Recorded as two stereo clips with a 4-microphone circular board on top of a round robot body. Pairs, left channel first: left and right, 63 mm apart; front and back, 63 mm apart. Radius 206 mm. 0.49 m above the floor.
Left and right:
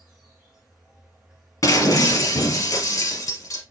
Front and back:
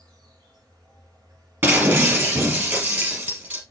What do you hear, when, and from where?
0.0 s an insect: 170° right, 3.5 m
1.6 s breaking glass: 130° left, 2.5 m